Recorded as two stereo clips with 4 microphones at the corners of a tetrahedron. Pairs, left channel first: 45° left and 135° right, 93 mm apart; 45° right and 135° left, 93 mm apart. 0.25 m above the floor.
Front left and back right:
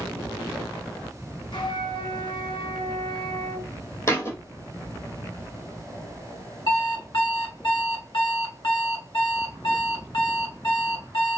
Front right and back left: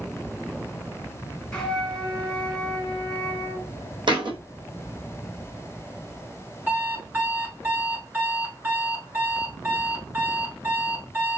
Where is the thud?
105° left, 1.4 m.